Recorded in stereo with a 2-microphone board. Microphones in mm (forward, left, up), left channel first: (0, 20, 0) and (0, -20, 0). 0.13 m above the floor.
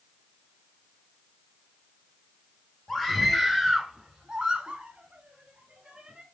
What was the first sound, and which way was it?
A scream, 5° left (ahead or behind).